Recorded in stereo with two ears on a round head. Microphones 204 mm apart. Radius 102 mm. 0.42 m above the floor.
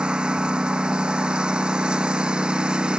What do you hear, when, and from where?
0.0 s a lawn mower: 5° right (ahead or behind)